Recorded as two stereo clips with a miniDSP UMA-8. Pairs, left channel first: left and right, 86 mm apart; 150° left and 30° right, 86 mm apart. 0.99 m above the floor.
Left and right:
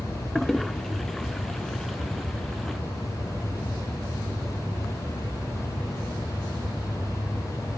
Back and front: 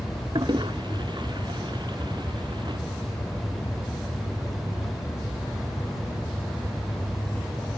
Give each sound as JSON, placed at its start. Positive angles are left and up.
{"t": 0.3, "sound": "a toilet flushing", "azimuth_deg": 0}